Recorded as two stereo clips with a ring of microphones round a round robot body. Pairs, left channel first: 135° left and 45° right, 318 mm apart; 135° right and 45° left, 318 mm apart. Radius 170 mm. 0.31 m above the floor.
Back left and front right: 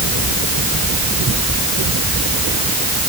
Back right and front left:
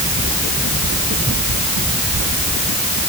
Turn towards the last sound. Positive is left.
No sound to turn to.